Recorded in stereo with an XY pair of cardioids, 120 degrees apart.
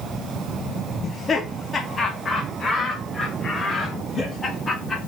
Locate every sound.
1.0 s laughter: 35° left, 1.9 m; by 5.0 s 25° left, 4 m